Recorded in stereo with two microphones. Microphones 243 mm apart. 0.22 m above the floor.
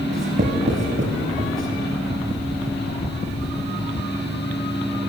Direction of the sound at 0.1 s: 55° right (ahead or behind).